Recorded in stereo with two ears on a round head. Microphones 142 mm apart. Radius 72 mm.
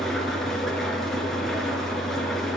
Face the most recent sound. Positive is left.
turn(degrees=0)  # may be behind; listen again after turning